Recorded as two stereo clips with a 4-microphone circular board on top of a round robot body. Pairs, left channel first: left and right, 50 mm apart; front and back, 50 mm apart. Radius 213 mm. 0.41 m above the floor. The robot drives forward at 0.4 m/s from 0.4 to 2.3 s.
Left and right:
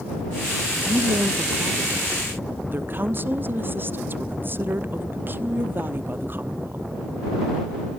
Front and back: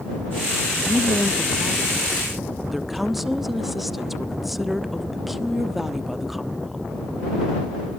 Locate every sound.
0.8 s a woman speaking: 55° right, 1.5 m; by 6.9 s 95° right, 1.4 m